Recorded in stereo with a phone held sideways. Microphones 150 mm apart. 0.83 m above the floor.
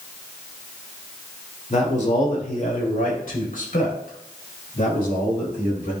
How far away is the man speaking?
About 2.5 m.